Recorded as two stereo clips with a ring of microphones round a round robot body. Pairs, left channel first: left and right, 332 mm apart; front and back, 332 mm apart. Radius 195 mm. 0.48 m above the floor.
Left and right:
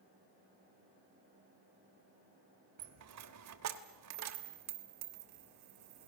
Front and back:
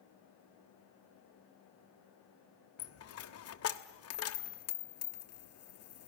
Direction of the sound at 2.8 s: 45° right.